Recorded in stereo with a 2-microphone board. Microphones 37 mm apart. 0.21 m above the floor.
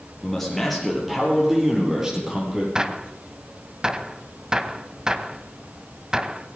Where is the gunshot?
20° right (ahead or behind), 0.8 m.